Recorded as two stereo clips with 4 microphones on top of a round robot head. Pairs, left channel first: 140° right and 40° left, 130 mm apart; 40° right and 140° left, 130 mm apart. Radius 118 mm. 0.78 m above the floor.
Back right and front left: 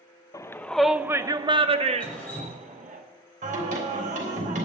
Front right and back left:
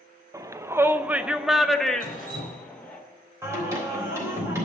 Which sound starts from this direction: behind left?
Dripping, at 2.0 s.